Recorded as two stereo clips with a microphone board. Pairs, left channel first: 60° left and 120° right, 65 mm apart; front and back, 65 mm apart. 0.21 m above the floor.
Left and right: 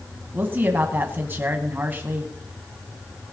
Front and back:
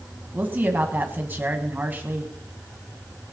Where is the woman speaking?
150° right, 1.4 m.